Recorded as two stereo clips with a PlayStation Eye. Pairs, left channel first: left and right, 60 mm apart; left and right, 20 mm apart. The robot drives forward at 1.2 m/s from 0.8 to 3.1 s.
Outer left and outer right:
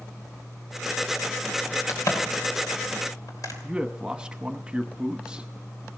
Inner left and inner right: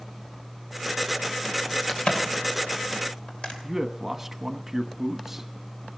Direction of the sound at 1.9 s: 65° left (ahead or behind).